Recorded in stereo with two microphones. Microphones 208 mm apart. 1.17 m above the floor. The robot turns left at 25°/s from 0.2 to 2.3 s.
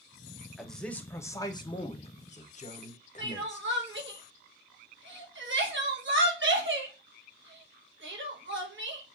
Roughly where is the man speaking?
Behind.